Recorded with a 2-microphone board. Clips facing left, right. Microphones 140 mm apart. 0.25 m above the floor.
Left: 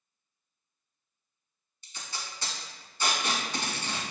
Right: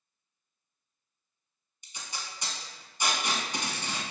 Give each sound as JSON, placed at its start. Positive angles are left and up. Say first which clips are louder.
{"t": 1.8, "sound": "tape being pulled", "louder": "even", "side_deg": -15, "distance_m": 0.8}